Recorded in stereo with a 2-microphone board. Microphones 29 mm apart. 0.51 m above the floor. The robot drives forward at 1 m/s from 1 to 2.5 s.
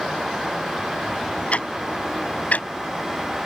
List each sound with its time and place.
1.5 s ticking: 45° left (ahead or behind); by 2.7 s 55° left (ahead or behind)